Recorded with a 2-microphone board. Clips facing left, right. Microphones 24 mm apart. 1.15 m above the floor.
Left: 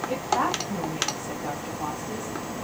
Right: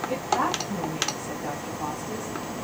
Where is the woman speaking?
5° left (ahead or behind), 1.7 m.